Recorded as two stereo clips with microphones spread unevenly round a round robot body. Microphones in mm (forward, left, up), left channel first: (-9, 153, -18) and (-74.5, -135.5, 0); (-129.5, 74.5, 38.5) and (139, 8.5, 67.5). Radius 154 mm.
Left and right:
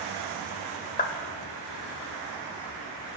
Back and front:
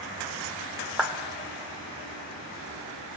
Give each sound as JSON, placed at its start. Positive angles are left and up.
{"t": 1.0, "sound": "a clap", "azimuth_deg": 85, "distance_m": 1.2}